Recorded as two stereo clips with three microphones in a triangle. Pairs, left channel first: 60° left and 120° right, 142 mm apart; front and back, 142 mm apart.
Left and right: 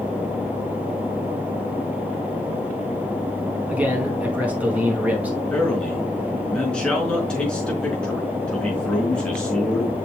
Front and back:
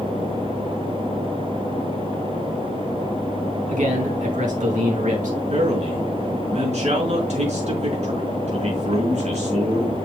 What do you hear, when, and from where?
3.7 s a man speaking: 160° left, 4 m
5.5 s a man speaking: 145° left, 4 m